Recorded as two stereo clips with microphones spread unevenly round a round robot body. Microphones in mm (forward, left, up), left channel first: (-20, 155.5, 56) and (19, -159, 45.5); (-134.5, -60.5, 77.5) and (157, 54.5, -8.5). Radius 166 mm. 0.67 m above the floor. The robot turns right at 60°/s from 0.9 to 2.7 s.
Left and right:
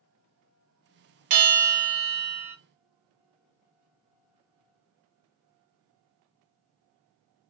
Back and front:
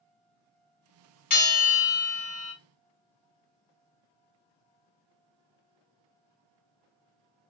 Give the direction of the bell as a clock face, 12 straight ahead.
3 o'clock.